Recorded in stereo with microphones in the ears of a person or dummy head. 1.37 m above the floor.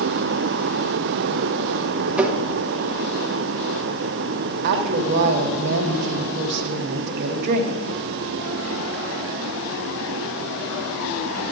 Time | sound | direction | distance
2.2 | tapping | 10° right (ahead or behind) | 0.9 m
4.6 | a woman speaking | 55° right (ahead or behind) | 0.9 m